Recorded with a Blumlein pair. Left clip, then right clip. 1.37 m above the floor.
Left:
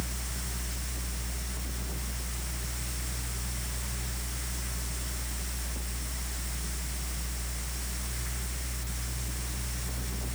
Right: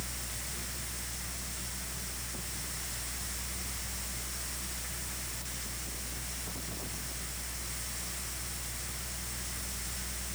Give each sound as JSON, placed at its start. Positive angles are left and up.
{"t": 0.0, "sound": "a fan", "azimuth_deg": 65, "distance_m": 1.5}